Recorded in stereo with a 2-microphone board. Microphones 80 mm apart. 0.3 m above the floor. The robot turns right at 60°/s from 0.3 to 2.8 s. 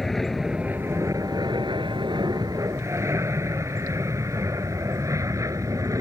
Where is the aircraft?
Centre (ahead or behind); by 6.0 s 40° right (ahead or behind).